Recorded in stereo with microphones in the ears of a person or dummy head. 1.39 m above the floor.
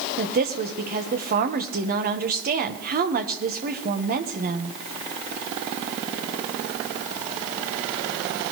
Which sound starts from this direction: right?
A woman speaking, at 0.2 s.